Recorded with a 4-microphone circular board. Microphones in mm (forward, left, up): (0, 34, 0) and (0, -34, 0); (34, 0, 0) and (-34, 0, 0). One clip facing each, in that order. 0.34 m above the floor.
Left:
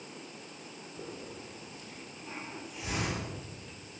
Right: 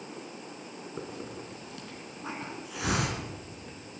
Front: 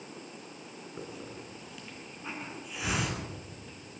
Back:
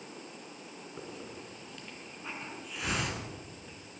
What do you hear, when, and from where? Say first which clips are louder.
1.0 s a hiss: right 3 dB, front 2 dB; 85° right, 3 m